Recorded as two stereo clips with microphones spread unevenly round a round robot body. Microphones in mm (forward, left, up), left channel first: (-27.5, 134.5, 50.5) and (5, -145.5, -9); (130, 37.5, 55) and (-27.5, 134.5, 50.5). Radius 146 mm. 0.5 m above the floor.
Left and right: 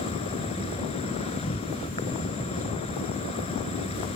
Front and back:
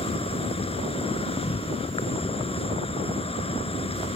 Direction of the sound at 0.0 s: 25° left.